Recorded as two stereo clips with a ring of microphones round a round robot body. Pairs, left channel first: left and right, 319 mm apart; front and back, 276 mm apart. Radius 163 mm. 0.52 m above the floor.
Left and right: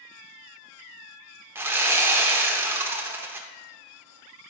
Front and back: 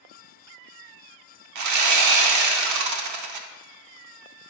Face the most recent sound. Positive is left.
turn(degrees=-175)